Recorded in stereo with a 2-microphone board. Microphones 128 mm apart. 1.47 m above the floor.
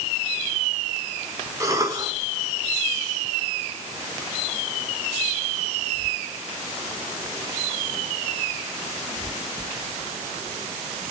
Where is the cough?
25° right (ahead or behind), 5.5 m.